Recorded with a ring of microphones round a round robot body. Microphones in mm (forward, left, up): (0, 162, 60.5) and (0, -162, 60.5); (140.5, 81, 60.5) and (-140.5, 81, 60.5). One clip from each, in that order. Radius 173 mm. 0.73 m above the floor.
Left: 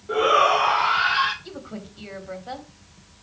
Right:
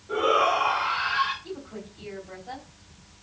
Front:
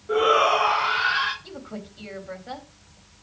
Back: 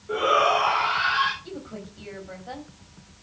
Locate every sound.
0.1 s a shout: 65° left, 1.6 m; by 1.3 s 80° left, 3 m
1.4 s a woman speaking: 50° left, 3.5 m